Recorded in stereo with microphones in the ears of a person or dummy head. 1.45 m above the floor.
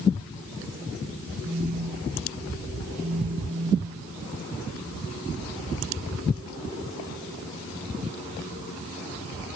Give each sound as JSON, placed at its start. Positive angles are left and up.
{"t": 1.4, "sound": "a phone buzzing", "side_deg": -55, "distance_m": 4.0}